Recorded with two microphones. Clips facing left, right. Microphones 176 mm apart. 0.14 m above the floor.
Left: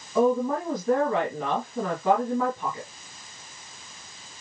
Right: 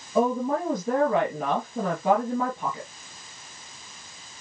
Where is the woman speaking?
25° right (ahead or behind), 2.5 m.